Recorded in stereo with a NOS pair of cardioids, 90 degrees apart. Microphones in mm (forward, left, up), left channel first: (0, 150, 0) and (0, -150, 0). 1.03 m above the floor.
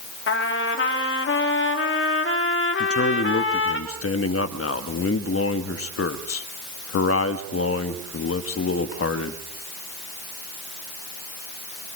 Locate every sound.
0.3 s a trumpet: 45° left, 2.5 m
2.8 s a man speaking: 50° left, 1.7 m